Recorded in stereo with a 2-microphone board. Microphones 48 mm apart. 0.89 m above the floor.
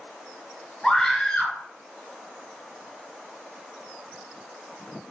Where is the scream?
10° left (ahead or behind), 3.5 m.